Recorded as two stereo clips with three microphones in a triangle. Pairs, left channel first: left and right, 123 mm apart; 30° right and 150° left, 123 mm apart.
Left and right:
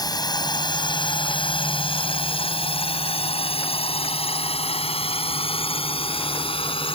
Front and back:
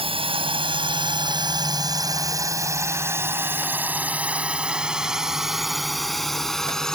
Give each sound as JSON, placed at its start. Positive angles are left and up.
{"t": 0.0, "sound": "a drone", "azimuth_deg": 135}